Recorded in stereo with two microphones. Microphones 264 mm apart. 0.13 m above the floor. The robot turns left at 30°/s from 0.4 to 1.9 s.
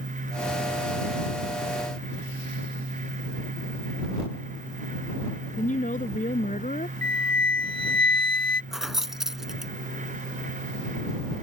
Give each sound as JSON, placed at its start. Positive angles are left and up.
{"t": 5.6, "sound": "a woman speaking", "side_deg": 30}
{"t": 7.0, "sound": "a flute", "side_deg": -35}
{"t": 8.7, "sound": "keys jangling", "side_deg": 0}